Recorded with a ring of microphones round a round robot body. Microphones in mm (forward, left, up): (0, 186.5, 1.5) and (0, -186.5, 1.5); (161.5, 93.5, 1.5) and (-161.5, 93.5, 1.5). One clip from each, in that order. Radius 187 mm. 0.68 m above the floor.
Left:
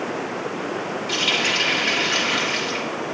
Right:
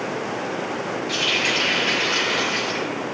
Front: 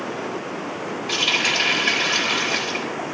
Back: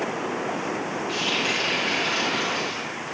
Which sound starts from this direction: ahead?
A running tap, at 1.1 s.